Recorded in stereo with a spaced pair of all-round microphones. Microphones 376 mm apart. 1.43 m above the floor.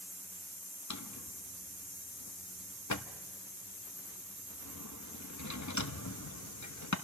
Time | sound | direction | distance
0.9 | a drawer | 45° left (ahead or behind) | 1.0 m